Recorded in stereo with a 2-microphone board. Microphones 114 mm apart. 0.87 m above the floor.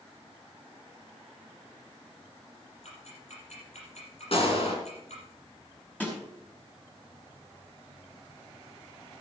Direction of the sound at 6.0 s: 15° left (ahead or behind).